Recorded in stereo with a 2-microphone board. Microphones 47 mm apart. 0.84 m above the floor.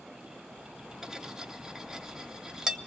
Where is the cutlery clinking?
10° right (ahead or behind), 0.8 m.